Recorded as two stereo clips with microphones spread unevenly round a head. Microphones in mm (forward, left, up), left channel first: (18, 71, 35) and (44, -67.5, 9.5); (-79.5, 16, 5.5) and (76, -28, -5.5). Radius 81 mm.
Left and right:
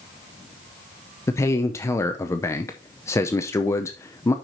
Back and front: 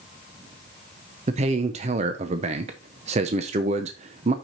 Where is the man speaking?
35° left, 0.6 m.